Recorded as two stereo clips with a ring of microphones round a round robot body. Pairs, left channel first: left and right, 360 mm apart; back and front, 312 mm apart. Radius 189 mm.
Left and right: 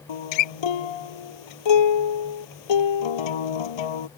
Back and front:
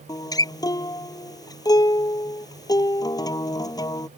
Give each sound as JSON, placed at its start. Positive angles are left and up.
{"t": 0.1, "sound": "a guitar", "azimuth_deg": 100}